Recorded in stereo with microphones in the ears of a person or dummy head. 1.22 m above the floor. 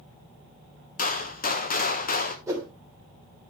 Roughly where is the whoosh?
Centre.